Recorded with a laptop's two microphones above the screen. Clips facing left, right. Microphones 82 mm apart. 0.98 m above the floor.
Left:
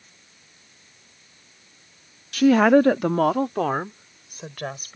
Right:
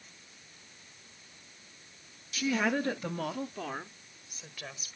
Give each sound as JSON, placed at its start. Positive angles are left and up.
{"t": 2.3, "sound": "a woman speaking", "side_deg": 60}